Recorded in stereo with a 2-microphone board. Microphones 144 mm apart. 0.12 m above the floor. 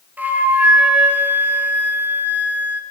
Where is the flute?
15° right (ahead or behind), 0.6 m.